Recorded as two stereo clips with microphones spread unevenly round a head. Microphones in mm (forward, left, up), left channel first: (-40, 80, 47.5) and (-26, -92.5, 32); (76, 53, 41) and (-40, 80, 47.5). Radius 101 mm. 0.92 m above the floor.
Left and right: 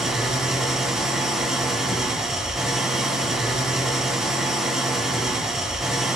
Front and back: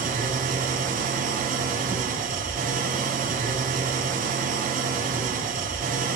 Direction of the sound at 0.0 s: 175° right.